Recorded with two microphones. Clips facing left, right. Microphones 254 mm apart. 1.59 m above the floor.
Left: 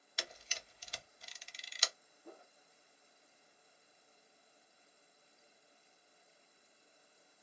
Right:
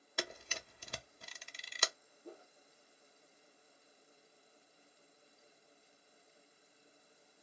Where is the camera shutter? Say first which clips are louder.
Right 7 dB; 60° right (ahead or behind), 0.5 m.